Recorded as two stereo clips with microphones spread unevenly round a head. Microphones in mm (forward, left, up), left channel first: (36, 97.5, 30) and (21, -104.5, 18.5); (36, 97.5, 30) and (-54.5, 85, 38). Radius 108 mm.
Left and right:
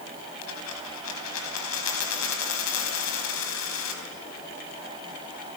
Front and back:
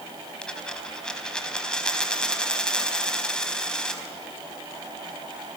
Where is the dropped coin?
90° left, 4 m.